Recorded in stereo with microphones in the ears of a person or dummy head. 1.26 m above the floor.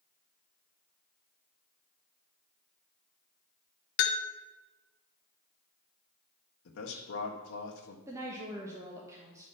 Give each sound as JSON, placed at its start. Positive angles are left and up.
{"t": 4.0, "sound": "a bell", "side_deg": 55, "distance_m": 0.9}
{"t": 6.7, "sound": "a man speaking", "side_deg": 75, "distance_m": 1.5}
{"t": 8.1, "sound": "a woman speaking", "side_deg": -20, "distance_m": 1.2}